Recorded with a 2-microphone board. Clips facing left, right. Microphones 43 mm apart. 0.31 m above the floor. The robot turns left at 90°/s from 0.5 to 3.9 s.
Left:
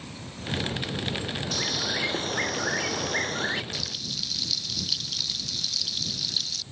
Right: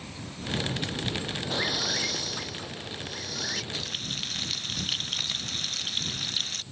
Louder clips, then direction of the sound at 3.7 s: Right 1 dB; 25° right (ahead or behind).